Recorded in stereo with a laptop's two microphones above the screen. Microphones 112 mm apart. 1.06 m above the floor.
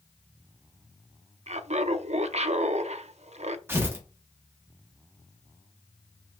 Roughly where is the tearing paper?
Centre.